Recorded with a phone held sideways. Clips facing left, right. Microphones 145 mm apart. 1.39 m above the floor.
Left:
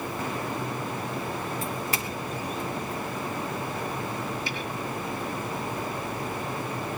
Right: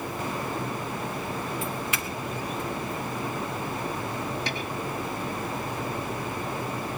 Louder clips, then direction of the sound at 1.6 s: Even; 40° left (ahead or behind).